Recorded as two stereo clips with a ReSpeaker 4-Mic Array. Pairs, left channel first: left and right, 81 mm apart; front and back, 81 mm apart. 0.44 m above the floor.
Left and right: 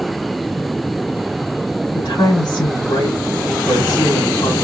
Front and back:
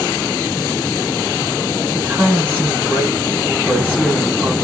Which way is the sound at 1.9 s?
120° left.